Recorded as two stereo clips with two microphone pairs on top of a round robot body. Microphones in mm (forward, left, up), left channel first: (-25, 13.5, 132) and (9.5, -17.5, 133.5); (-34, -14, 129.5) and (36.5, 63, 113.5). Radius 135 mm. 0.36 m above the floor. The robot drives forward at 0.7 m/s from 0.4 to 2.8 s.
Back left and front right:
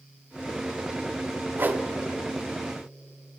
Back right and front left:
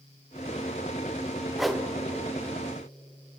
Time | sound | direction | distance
1.6 | a whoosh | 30° right | 1.0 m